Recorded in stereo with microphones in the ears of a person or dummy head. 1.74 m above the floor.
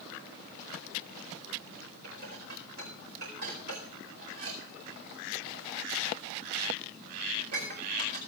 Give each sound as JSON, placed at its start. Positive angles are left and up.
{"t": 2.0, "sound": "dishes clattering", "side_deg": -60, "distance_m": 4.5}